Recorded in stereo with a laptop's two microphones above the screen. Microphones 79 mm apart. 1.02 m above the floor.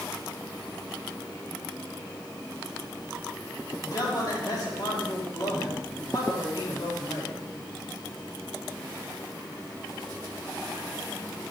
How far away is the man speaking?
About 2 m.